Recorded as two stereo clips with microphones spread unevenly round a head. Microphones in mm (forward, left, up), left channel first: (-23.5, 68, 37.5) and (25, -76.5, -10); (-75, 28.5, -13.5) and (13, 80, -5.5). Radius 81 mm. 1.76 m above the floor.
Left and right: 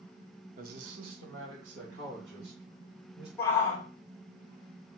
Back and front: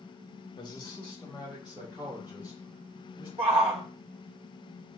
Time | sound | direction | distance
0.6 | a man speaking | 115° right | 0.9 m
3.4 | a shout | 40° left | 1.5 m